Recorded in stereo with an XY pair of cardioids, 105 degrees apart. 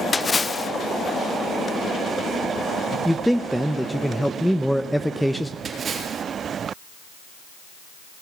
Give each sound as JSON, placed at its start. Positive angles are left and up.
{"t": 0.1, "sound": "a splash", "azimuth_deg": 25, "distance_m": 0.6}
{"t": 3.0, "sound": "a man speaking", "azimuth_deg": 0, "distance_m": 0.6}
{"t": 5.7, "sound": "a splash", "azimuth_deg": -45, "distance_m": 3.5}